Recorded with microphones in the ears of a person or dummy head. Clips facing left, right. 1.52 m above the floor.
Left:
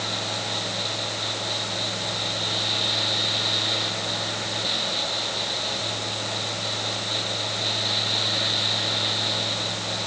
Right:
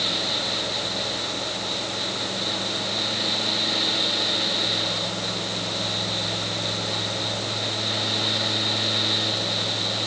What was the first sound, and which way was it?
Only background noise.